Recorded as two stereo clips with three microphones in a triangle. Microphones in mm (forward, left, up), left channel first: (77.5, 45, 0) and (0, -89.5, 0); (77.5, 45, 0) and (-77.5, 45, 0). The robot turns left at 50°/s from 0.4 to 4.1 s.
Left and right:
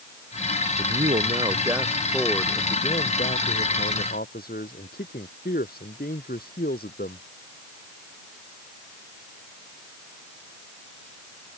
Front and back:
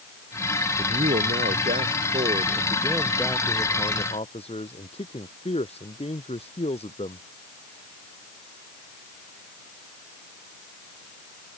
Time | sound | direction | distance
0.8 | a man speaking | 145° right | ?